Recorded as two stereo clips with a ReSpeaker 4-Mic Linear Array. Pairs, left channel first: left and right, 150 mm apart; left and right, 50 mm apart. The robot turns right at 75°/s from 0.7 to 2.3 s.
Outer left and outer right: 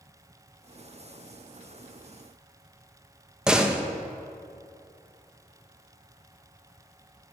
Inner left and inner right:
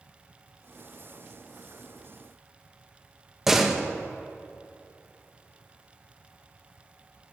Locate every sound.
3.5 s a door slam: 5° right (ahead or behind), 1.1 m